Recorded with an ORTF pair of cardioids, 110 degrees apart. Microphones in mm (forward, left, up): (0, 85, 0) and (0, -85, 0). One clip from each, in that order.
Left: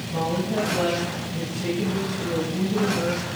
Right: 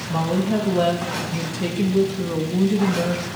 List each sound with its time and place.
0.1 s a woman speaking: 60° right, 6.5 m